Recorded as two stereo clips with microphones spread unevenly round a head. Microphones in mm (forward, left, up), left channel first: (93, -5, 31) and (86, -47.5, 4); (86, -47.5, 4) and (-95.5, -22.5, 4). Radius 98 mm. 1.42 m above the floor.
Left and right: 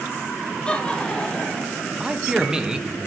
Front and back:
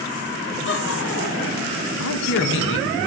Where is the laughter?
25° left, 0.9 m; by 1.8 s 15° left, 1.6 m.